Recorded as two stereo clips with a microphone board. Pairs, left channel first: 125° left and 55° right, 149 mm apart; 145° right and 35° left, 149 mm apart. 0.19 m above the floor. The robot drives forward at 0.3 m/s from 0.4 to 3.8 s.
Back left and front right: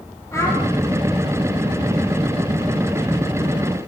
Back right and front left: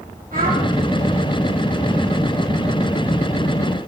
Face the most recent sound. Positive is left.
turn(degrees=65)